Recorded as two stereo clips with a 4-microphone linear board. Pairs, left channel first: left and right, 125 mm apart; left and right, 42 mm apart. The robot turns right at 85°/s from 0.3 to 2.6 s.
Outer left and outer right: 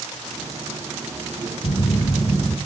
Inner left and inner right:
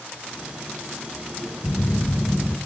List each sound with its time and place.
1.6 s a phone buzzing: 100° left, 1.2 m; by 2.6 s straight behind, 1.2 m